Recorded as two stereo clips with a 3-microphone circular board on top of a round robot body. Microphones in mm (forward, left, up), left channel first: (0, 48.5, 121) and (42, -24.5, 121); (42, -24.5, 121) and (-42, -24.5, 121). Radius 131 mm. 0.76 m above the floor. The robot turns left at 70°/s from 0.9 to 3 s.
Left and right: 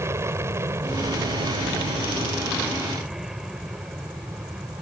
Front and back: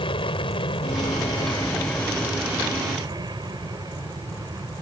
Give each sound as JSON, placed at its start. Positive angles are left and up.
{"t": 0.0, "sound": "an aircraft", "azimuth_deg": -5}